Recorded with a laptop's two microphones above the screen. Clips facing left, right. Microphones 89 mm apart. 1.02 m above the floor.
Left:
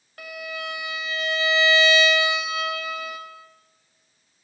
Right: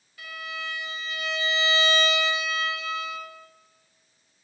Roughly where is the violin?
Left.